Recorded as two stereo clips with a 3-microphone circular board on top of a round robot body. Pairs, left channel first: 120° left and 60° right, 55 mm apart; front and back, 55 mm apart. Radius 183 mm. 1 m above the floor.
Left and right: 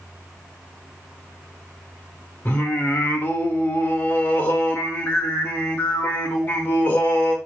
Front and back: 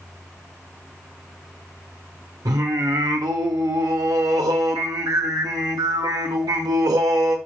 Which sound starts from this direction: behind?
Singing, at 2.5 s.